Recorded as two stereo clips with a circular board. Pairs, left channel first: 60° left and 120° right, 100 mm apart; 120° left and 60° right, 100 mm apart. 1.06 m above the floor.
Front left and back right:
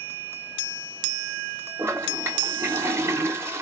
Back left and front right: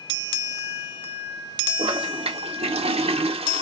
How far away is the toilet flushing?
About 0.6 m.